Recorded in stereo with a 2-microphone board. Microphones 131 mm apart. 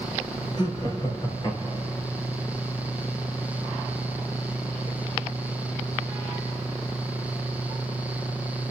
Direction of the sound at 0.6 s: 35° left (ahead or behind).